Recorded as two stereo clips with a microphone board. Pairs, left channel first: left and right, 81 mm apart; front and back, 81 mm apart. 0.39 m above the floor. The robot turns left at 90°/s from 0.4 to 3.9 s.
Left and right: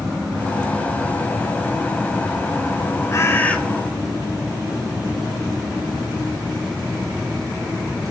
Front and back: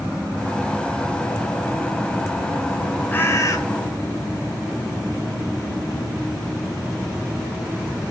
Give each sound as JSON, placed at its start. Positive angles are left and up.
{"t": 3.1, "sound": "a bird", "azimuth_deg": 60, "distance_m": 1.7}